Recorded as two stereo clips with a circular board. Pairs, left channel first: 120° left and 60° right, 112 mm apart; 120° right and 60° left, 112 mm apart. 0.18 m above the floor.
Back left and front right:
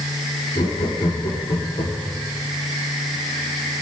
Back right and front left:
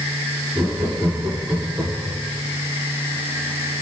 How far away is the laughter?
About 6 m.